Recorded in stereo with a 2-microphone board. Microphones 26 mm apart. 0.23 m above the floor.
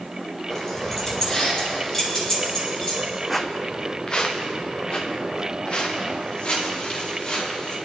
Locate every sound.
0.5 s keys jangling: 15° left (ahead or behind), 4.5 m; by 3.0 s 20° left (ahead or behind), 6 m
3.3 s footsteps: 5° left (ahead or behind), 0.8 m; by 7.8 s 40° left (ahead or behind), 7.5 m